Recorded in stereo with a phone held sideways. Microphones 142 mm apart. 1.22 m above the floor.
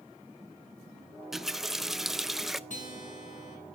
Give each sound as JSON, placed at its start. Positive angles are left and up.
{"t": 1.3, "sound": "a running tap", "side_deg": -5, "distance_m": 0.5}
{"t": 2.7, "sound": "a guitar", "side_deg": 65, "distance_m": 4.0}